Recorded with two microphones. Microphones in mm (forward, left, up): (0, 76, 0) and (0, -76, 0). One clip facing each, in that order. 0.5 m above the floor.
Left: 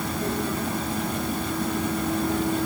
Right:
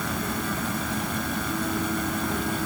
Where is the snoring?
No snoring in this recording.